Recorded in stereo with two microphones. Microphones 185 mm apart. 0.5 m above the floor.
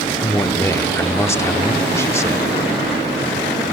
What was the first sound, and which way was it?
A man speaking, 15° left (ahead or behind).